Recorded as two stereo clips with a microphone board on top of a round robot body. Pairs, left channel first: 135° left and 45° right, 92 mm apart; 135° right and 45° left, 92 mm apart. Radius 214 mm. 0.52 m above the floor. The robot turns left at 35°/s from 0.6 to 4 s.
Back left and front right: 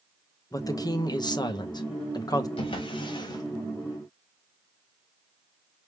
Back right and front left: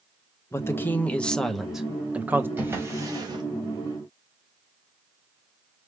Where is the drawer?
115° left, 1.6 m; by 3.4 s 85° left, 1.6 m.